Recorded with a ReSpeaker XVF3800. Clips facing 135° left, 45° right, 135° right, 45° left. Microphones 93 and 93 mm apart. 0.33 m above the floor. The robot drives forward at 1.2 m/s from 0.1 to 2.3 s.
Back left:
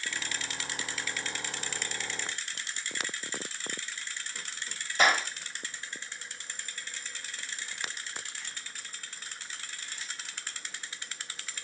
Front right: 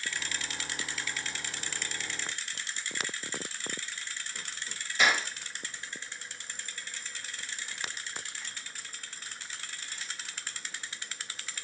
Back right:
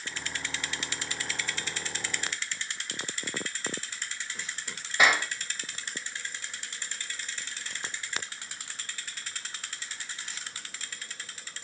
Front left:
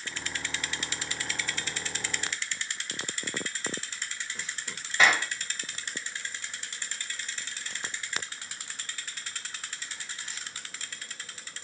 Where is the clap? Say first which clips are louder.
Back left 2 dB, even; 155° left, 1.0 m.